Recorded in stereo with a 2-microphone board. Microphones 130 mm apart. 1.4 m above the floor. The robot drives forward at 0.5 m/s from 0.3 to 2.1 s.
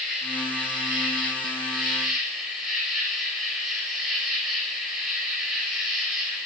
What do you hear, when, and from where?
0.0 s an insect: centre (ahead or behind), 8 m; by 6.5 s 5° right (ahead or behind), 7 m